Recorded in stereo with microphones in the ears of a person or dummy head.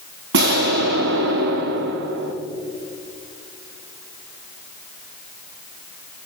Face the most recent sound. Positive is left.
turn(degrees=-55)  # may be behind; listen again after turning